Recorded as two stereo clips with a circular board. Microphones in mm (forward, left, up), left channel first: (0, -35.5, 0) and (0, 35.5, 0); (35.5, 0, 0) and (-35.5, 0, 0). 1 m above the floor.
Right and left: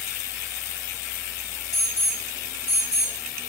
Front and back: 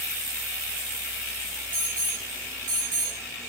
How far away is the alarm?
About 2.5 m.